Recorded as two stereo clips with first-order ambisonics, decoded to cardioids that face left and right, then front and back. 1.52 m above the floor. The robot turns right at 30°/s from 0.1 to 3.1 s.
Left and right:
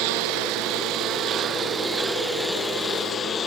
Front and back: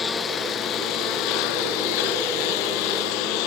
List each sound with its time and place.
0.0 s a lawn mower: 70° right; by 3.5 s 20° left